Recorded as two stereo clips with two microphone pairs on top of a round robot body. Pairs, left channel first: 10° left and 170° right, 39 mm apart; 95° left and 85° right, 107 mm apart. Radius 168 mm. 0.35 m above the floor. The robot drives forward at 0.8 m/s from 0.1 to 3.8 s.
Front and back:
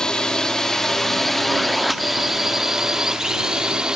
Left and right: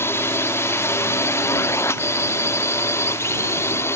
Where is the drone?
60° left; by 4.0 s 145° left.